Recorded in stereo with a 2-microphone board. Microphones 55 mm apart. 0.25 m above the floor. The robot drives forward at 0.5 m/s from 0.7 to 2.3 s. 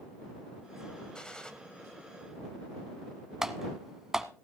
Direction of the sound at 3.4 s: 10° right (ahead or behind).